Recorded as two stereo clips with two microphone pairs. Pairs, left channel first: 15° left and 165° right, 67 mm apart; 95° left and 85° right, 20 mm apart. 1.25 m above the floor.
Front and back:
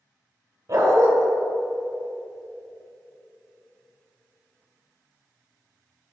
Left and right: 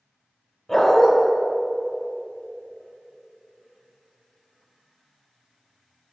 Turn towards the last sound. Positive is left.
turn(degrees=170)